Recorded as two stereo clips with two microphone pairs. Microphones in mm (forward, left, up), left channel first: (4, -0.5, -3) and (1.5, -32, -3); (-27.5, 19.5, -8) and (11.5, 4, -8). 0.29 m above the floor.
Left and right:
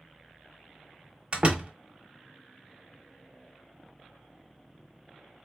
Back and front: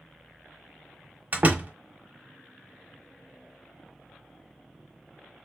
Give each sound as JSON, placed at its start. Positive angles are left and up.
{"t": 1.3, "sound": "a door slam", "azimuth_deg": -60, "distance_m": 1.4}